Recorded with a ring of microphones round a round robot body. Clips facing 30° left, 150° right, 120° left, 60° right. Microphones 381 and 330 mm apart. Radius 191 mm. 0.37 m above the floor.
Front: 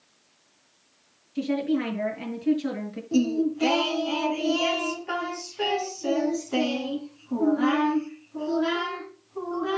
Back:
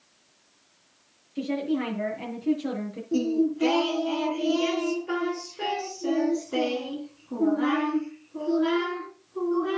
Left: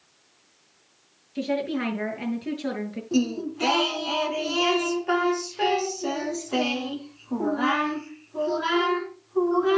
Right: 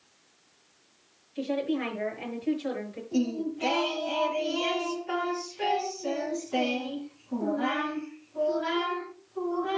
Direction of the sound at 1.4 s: 100° left.